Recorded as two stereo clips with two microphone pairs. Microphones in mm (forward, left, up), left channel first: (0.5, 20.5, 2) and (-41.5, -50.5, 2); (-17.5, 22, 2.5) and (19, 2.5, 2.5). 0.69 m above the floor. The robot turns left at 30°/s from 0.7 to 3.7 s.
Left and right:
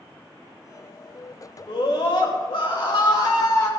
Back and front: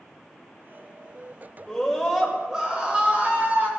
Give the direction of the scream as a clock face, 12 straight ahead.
10 o'clock.